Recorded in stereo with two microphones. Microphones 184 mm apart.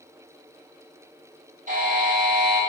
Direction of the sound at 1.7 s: 45° right (ahead or behind).